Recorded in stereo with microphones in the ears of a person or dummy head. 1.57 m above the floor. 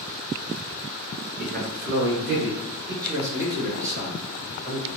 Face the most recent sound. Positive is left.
turn(degrees=-70)  # may be behind; listen again after turning